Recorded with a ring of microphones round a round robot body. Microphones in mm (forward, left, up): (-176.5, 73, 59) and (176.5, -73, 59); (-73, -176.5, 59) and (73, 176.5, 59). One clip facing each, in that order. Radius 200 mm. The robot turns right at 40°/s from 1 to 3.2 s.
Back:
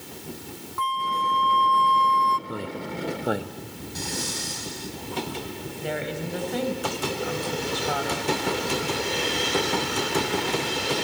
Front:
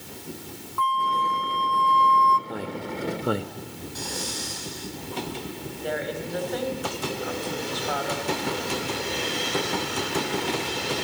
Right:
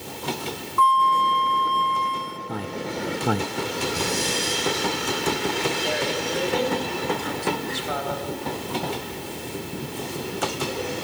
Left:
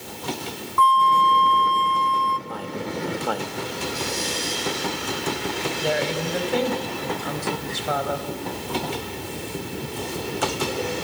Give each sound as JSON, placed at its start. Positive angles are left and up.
{"t": 0.8, "sound": "a flute", "azimuth_deg": 95, "distance_m": 0.9}
{"t": 2.5, "sound": "a man speaking", "azimuth_deg": -130, "distance_m": 1.1}
{"t": 4.0, "sound": "breathing", "azimuth_deg": -145, "distance_m": 5.5}
{"t": 5.8, "sound": "a woman speaking", "azimuth_deg": 105, "distance_m": 4.0}